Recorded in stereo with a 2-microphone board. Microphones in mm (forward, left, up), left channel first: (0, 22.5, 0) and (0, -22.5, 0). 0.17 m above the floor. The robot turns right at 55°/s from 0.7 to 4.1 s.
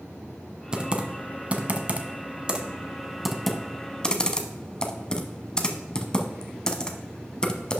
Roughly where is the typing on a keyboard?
Centre.